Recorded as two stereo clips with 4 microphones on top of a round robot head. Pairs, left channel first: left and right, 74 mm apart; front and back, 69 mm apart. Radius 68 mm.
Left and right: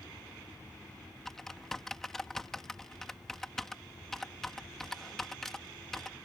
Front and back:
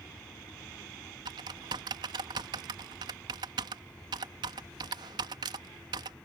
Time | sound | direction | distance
1.2 | typing on a keyboard | 175° left | ?